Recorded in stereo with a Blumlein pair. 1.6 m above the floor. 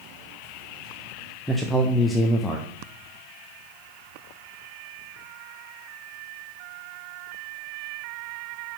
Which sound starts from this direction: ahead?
A man speaking, at 1.5 s.